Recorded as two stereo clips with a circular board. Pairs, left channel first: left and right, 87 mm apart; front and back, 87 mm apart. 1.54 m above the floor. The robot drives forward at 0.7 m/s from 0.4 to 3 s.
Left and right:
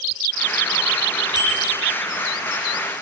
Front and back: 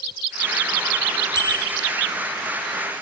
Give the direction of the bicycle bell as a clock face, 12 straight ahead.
2 o'clock.